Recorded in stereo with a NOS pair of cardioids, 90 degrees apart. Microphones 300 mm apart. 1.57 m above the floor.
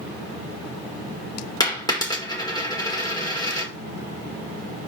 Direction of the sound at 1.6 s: 15° left.